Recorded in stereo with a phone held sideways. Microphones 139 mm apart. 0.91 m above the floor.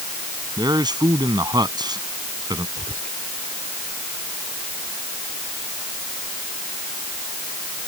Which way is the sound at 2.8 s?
70° right (ahead or behind).